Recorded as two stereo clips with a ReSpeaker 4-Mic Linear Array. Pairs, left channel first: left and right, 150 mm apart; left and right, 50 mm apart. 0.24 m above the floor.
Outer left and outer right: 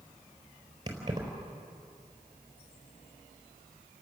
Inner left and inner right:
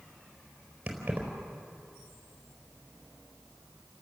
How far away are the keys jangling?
About 4 m.